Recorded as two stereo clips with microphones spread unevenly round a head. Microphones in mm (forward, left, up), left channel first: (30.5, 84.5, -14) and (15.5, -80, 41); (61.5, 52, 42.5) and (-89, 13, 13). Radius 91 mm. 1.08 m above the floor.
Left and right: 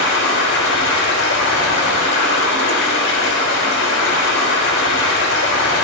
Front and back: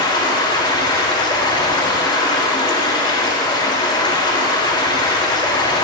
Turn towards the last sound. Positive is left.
turn(degrees=75)